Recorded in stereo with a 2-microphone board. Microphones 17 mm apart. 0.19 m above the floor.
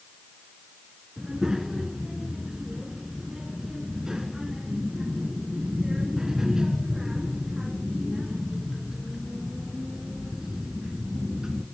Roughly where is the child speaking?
Right.